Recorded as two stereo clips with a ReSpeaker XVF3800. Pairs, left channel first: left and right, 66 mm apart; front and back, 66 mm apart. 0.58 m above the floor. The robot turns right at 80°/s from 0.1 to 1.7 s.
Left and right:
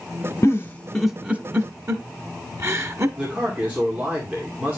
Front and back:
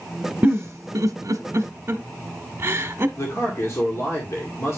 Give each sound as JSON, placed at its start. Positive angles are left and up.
{"t": 0.4, "sound": "a giggle", "azimuth_deg": 130, "distance_m": 0.9}
{"t": 3.2, "sound": "a man speaking", "azimuth_deg": -25, "distance_m": 2.0}